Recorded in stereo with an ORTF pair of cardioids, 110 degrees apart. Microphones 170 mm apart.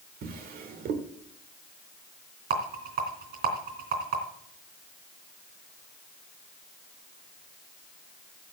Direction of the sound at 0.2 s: 60° right.